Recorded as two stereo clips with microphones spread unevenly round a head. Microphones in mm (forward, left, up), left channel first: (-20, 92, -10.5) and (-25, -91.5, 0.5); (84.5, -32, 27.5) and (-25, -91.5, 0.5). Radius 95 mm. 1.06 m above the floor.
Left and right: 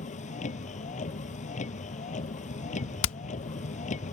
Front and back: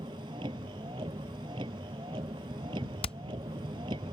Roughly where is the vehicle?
Behind left.